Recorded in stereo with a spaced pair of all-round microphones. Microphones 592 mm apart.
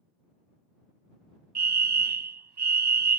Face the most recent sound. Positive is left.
turn(degrees=-45)  # may be behind; listen again after turning